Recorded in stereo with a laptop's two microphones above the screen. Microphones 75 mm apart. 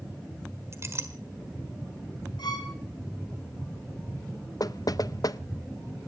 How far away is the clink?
About 1.6 m.